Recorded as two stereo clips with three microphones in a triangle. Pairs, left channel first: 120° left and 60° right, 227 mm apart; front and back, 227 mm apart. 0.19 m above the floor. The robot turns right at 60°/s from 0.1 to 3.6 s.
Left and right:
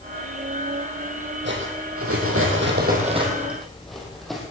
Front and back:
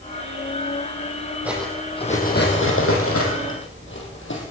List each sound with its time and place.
1.4 s cutlery clinking: 100° right, 3.5 m; by 4.4 s 30° left, 3.5 m